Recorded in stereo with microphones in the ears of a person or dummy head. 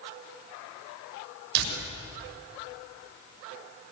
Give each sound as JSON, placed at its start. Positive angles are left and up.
{"t": 1.6, "sound": "a door slam", "side_deg": -70, "distance_m": 7.0}